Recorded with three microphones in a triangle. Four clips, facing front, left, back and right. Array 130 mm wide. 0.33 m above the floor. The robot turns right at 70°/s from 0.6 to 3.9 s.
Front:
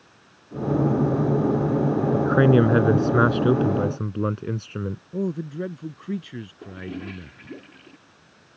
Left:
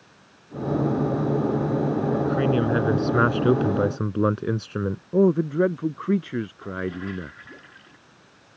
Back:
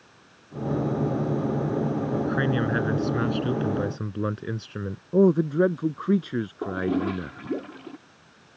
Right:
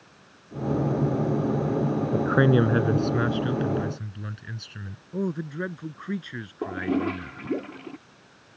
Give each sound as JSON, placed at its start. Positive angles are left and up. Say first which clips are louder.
{"t": 2.1, "sound": "a man speaking", "louder": "right 4 dB, front 10 dB", "azimuth_deg": -40}
{"t": 5.1, "sound": "a man speaking", "louder": "left 10 dB, back 10 dB", "azimuth_deg": 135}
{"t": 6.6, "sound": "a toilet flushing", "louder": "right 4 dB, back 10 dB", "azimuth_deg": -135}